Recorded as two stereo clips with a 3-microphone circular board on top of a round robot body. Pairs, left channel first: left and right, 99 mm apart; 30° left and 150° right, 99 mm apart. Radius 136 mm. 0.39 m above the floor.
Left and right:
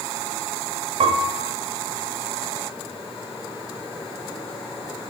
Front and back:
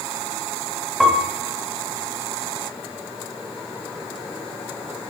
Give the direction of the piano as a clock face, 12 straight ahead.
2 o'clock.